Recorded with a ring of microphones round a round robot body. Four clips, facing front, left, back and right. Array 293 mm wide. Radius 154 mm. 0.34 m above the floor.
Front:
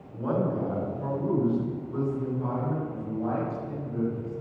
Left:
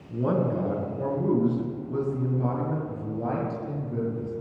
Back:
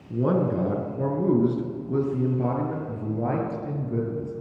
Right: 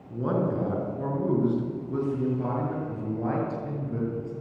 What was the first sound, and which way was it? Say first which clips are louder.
A man speaking: left 1 dB, back 4 dB; 175° left.